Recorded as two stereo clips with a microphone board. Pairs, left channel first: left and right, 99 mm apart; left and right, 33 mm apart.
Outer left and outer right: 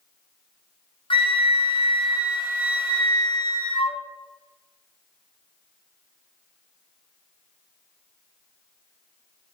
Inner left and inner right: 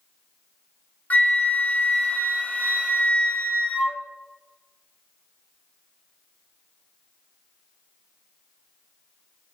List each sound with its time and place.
1.1 s a flute: 60° left (ahead or behind), 0.8 m